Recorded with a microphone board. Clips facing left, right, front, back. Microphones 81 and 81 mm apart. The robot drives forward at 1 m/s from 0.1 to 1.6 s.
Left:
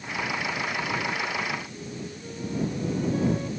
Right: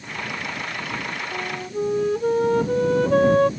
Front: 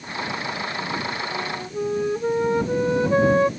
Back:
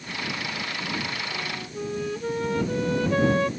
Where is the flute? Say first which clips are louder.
Right 4 dB, front 5 dB; 65° right; by 3.5 s 70° right.